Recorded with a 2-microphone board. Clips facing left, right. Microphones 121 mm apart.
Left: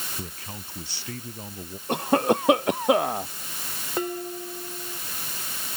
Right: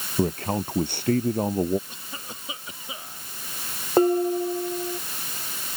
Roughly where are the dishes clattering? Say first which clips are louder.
Right 11 dB; right.